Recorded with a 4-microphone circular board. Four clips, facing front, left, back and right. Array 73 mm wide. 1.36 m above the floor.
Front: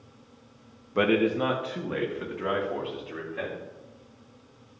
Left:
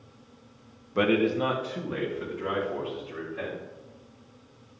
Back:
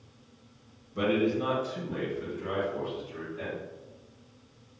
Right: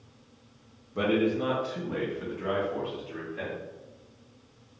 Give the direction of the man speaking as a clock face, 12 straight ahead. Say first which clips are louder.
Left 2 dB, front 3 dB; 11 o'clock.